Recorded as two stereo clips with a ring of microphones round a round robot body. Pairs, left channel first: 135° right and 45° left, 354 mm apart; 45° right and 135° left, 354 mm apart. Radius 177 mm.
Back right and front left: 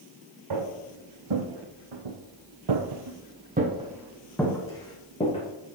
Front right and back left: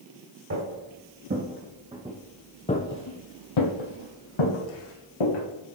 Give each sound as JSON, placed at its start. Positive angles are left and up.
{"t": 0.5, "sound": "footsteps", "azimuth_deg": 80, "distance_m": 2.0}